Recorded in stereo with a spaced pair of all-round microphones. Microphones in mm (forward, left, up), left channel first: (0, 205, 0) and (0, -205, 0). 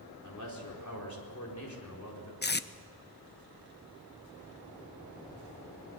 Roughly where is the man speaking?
Left.